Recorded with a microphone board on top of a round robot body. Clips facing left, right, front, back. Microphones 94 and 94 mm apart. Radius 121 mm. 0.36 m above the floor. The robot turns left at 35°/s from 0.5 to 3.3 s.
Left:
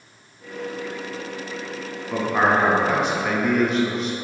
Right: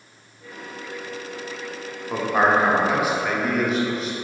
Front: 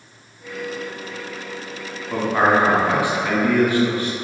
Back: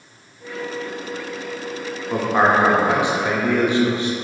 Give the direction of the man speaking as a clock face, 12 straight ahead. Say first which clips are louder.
Right 1 dB, even; 4 o'clock.